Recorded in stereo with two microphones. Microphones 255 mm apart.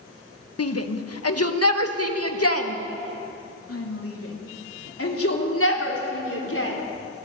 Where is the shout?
70° left (ahead or behind), 1.4 m; by 6.8 s 60° left (ahead or behind), 4.5 m.